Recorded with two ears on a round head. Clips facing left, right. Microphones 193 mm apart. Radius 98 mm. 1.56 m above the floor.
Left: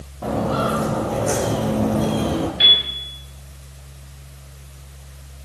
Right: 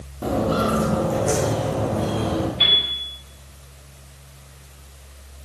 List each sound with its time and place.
0.2 s footsteps: 20° right (ahead or behind), 2 m; by 2.5 s 35° left (ahead or behind), 1.8 m
2.6 s a piano: 15° left (ahead or behind), 5 m